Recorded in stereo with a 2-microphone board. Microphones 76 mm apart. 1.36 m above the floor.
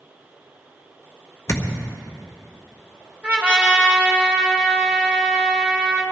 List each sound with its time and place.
1.5 s a thud: 40° left (ahead or behind), 1.5 m
3.2 s a trumpet: 20° right (ahead or behind), 2.5 m